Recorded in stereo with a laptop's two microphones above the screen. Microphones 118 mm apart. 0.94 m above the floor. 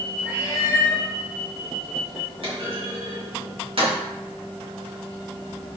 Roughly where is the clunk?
Right.